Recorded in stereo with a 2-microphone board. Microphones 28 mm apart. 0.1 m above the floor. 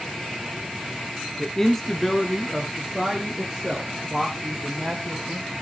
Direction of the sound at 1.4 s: 15° left (ahead or behind).